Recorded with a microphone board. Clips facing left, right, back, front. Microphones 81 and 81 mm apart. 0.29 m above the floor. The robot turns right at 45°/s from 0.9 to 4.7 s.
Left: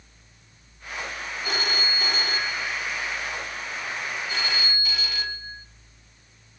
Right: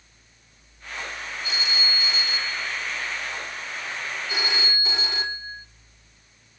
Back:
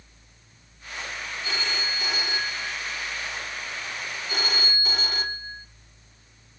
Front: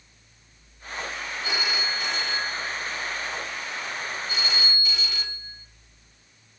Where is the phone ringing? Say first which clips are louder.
Left 3 dB, front 2 dB; 70° left, 1.1 m; by 5.7 s 145° right, 1.1 m.